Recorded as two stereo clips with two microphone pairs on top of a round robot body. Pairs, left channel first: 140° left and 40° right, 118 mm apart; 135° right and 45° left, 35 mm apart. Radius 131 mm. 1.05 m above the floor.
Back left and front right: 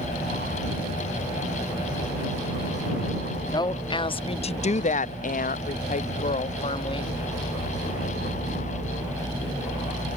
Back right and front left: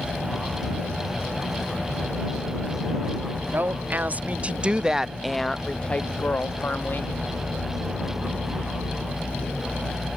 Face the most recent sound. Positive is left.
turn(degrees=-165)